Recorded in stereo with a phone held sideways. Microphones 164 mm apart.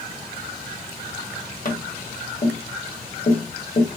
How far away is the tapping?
About 1.0 m.